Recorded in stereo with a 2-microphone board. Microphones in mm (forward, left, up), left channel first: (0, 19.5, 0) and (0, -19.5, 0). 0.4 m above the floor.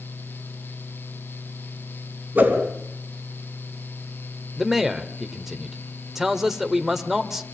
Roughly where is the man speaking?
Centre.